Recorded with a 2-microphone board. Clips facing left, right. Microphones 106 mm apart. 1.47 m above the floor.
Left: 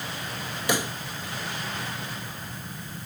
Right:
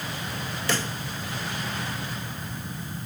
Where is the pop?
15° left (ahead or behind).